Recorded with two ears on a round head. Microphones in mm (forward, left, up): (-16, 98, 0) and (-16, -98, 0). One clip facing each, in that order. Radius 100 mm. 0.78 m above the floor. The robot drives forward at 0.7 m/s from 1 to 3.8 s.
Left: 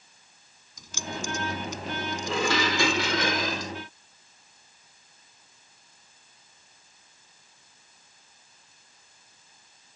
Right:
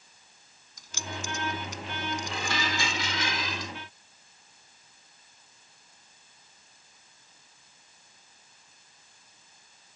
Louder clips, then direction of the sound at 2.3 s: Left 7 dB; 65° left (ahead or behind).